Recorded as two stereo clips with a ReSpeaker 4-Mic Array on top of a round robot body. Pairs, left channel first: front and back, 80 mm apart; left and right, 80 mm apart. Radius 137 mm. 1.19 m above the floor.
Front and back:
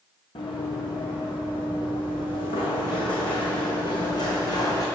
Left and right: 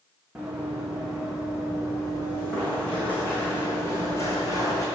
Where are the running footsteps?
5° right, 4 m; by 4.8 s 45° left, 3 m.